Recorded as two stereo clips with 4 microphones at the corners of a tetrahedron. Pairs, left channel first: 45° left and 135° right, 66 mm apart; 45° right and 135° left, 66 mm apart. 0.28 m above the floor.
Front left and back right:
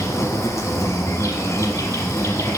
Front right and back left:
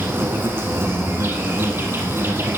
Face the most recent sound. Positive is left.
turn(degrees=85)